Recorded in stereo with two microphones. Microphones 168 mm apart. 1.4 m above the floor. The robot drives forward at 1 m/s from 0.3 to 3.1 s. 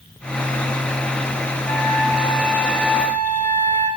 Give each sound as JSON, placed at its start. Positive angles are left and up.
{"t": 1.7, "sound": "a flute", "side_deg": 10, "distance_m": 9.5}